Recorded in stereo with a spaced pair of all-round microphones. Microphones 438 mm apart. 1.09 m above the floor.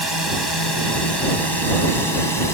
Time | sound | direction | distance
0.0 | a drone | 65° left (ahead or behind) | ?